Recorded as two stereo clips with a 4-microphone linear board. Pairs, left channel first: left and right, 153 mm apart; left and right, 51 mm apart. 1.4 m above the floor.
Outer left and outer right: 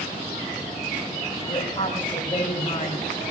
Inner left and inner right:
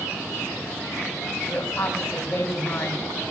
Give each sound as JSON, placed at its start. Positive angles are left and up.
{"t": 1.5, "sound": "a woman speaking", "side_deg": 30, "distance_m": 3.0}